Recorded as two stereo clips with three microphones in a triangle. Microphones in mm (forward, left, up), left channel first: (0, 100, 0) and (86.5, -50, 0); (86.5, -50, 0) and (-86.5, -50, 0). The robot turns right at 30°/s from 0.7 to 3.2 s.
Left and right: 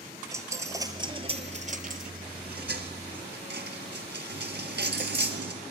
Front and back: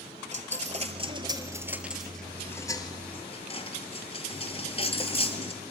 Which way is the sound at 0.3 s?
130° right.